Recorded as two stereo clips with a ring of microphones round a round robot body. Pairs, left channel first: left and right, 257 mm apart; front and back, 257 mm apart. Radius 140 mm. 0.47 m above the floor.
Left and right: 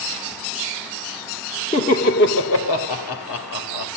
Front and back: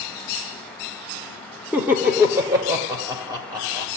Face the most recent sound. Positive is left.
turn(degrees=105)